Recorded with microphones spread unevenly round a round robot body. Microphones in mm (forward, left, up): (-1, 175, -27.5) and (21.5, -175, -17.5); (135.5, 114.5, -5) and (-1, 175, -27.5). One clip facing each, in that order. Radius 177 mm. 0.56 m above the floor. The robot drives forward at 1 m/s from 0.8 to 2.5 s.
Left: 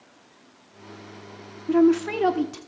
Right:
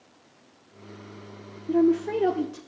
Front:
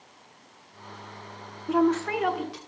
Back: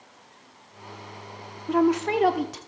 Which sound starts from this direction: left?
A woman speaking, at 1.7 s.